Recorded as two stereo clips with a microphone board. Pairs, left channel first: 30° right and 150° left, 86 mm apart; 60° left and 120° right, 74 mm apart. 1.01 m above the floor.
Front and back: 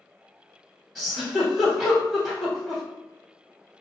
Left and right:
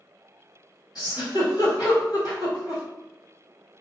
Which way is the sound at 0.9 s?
60° left.